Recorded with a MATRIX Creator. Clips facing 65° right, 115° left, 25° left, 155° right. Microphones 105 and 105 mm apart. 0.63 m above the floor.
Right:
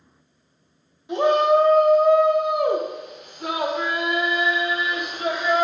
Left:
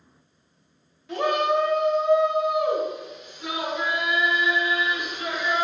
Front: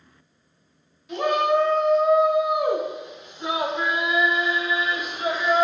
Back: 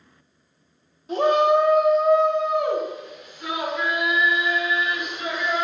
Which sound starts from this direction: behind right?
A shout, at 1.1 s.